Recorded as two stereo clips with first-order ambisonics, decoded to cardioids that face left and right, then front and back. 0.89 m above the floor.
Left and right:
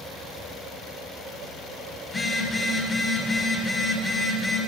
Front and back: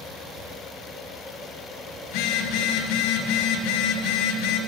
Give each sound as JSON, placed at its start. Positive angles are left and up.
{"t": 2.0, "sound": "a phone buzzing", "azimuth_deg": 10, "distance_m": 3.0}